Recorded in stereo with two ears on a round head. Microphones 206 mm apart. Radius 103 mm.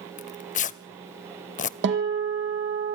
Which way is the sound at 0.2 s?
35° left (ahead or behind).